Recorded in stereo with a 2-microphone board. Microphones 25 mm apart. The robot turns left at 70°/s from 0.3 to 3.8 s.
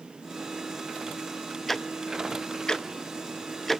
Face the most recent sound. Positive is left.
turn(degrees=5)  # may be behind; listen again after turning